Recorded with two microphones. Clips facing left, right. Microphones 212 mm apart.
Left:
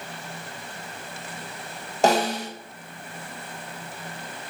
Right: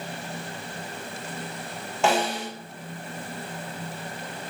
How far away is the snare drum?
About 0.5 m.